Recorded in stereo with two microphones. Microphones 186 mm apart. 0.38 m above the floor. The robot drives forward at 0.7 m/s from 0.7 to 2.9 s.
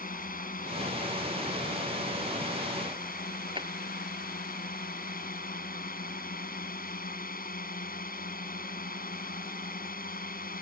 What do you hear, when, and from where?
0.0 s a drone: 50° left (ahead or behind)
3.5 s a drawer: 25° right (ahead or behind)